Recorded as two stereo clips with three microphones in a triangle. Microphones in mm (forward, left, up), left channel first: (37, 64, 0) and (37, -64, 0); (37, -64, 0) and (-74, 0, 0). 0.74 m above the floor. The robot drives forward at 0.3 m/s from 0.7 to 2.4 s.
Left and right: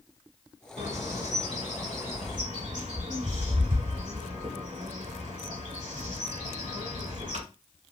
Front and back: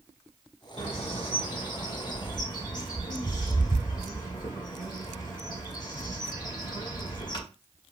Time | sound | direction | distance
0.8 | a bird | 70° right | 1.8 m